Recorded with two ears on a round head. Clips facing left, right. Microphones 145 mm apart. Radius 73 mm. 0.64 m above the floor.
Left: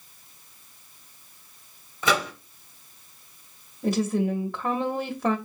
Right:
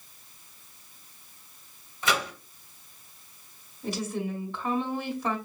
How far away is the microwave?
About 1.2 m.